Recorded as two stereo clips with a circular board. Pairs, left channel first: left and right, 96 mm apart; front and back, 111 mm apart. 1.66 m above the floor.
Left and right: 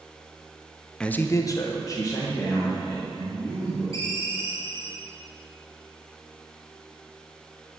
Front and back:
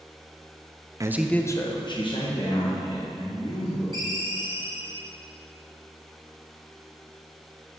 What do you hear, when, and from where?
1.0 s a man speaking: 165° left, 0.5 m; by 3.8 s 30° left, 3.5 m
3.9 s a ringtone: 45° left, 2.5 m